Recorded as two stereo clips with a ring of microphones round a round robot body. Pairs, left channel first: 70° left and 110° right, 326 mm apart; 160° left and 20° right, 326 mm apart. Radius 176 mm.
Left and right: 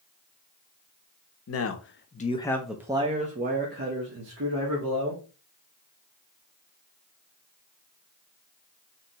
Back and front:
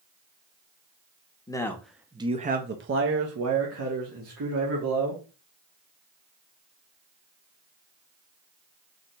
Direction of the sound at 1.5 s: 85° left.